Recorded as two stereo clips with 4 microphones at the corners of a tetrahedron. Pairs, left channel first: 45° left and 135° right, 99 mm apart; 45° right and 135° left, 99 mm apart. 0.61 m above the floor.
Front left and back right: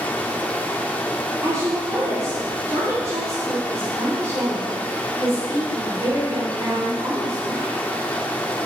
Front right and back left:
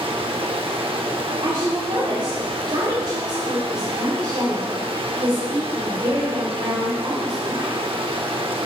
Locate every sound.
0.0 s running water: 120° left, 0.8 m
1.4 s a woman speaking: 170° left, 3 m